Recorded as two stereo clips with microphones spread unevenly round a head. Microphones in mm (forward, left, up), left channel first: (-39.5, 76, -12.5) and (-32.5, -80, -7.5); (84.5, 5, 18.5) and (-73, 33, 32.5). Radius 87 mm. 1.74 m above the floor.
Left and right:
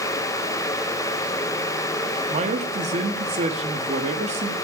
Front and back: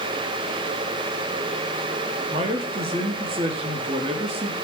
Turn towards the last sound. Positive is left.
turn(degrees=-130)